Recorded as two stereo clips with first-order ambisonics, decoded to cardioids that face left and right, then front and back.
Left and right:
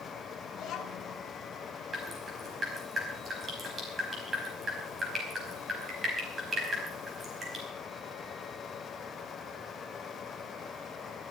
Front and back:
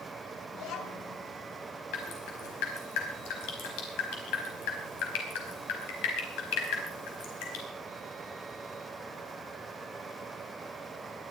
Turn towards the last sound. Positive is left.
turn(degrees=-15)